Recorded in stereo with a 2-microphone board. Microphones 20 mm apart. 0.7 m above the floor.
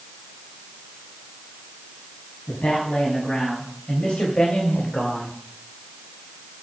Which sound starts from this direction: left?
A man speaking, at 2.5 s.